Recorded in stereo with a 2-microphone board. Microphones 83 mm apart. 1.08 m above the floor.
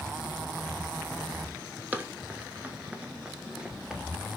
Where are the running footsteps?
20° right (ahead or behind), 1.1 m; by 4.3 s 10° right (ahead or behind), 1.5 m.